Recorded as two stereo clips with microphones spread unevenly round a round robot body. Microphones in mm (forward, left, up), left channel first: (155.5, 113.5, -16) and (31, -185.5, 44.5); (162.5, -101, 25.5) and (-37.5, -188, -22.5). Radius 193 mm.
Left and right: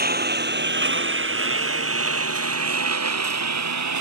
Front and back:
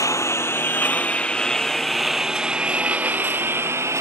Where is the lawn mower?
50° right; by 4.0 s 80° right.